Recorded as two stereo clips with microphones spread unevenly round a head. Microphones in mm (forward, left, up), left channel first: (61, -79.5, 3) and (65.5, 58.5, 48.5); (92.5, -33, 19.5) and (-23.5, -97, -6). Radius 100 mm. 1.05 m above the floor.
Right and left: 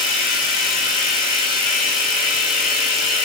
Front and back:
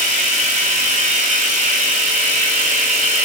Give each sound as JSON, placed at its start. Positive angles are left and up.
{"t": 0.0, "sound": "running water", "azimuth_deg": -125, "distance_m": 8.0}